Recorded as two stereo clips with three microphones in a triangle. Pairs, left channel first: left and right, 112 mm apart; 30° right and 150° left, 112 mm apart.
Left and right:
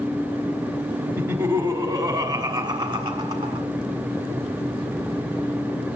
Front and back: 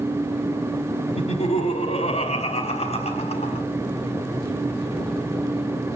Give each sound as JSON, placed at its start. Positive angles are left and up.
{"t": 1.2, "sound": "laughter", "azimuth_deg": -25, "distance_m": 1.5}